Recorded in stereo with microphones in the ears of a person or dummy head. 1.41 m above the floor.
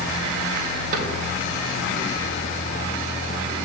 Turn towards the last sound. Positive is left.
turn(degrees=-55)  # may be behind; listen again after turning